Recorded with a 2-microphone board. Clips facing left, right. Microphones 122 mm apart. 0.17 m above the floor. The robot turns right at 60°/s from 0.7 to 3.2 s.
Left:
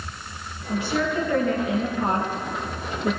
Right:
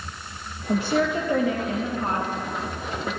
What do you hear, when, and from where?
0.7 s a woman speaking: 55° right, 3.5 m; by 3.2 s 95° left, 3.5 m